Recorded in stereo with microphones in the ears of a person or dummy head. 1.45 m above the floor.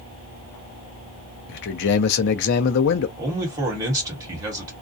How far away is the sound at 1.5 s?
About 0.5 m.